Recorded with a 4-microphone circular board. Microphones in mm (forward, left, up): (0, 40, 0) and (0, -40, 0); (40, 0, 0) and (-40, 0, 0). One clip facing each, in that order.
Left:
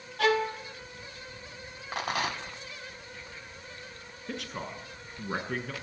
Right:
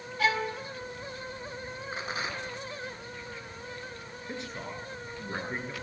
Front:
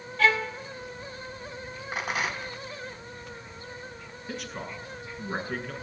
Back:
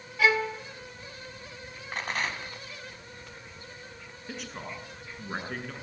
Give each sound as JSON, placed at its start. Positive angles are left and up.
{"t": 0.2, "sound": "a violin", "azimuth_deg": 105, "distance_m": 2.5}
{"t": 1.9, "sound": "a rattle", "azimuth_deg": 80, "distance_m": 2.5}
{"t": 4.3, "sound": "a man speaking", "azimuth_deg": 90, "distance_m": 7.5}